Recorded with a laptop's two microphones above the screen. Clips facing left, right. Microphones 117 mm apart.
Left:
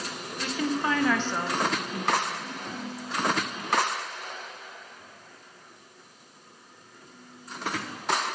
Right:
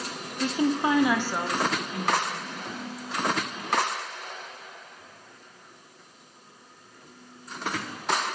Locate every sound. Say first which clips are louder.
0.4 s a woman speaking: right 4 dB; 30° right (ahead or behind), 0.6 m; by 3.0 s 5° left (ahead or behind), 1.7 m